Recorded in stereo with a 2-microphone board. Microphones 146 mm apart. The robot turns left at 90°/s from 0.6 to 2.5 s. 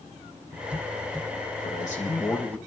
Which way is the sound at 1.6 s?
90° left.